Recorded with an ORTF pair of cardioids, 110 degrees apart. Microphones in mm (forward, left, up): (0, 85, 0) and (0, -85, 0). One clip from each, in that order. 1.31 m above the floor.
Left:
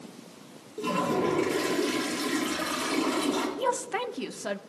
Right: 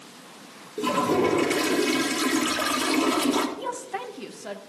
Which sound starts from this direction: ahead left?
A woman speaking, at 3.6 s.